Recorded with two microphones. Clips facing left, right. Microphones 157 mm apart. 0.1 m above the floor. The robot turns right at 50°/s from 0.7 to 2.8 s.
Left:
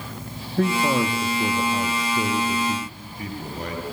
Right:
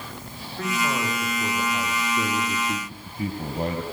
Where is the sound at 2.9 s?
30° right (ahead or behind), 2.5 m.